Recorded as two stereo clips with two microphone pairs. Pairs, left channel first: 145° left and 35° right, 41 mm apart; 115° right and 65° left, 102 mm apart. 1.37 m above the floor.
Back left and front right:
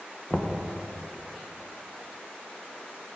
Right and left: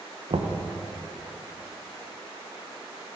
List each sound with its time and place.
0.3 s knocking: 70° left, 0.9 m